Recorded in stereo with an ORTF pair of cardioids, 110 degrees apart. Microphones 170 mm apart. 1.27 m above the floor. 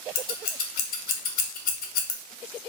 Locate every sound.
0.1 s scissors: 60° left, 0.8 m